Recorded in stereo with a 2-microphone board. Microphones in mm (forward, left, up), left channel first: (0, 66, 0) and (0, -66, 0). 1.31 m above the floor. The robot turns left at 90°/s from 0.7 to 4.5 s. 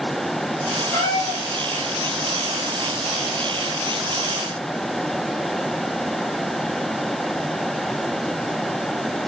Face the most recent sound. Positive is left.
turn(degrees=-170)